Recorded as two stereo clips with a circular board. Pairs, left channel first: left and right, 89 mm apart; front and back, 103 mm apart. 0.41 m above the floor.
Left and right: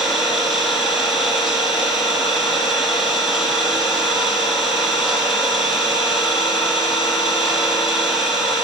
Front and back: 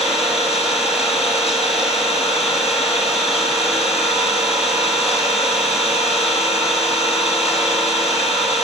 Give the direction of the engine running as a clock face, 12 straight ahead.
9 o'clock.